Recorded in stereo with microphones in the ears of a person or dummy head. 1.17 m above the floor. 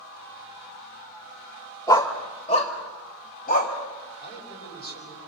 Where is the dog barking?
15° left (ahead or behind), 1.3 m; by 3.7 s 45° left (ahead or behind), 3 m.